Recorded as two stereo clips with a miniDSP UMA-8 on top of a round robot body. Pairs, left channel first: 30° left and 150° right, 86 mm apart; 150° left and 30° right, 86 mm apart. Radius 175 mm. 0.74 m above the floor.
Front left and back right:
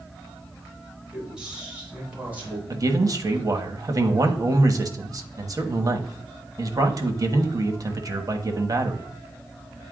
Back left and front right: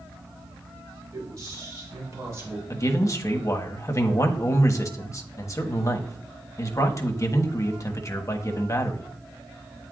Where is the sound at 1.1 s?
70° right, 3.5 m; by 2.6 s 85° right, 3 m.